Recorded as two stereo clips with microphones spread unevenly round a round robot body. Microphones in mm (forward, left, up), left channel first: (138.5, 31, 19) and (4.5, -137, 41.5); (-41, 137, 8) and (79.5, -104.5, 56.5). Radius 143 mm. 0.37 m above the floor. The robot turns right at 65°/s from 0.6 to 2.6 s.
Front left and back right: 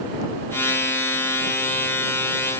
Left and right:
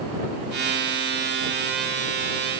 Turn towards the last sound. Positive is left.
No sound to turn to.